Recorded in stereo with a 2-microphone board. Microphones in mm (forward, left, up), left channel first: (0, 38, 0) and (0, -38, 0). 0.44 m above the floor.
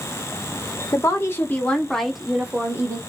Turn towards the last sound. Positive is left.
turn(degrees=-30)  # may be behind; listen again after turning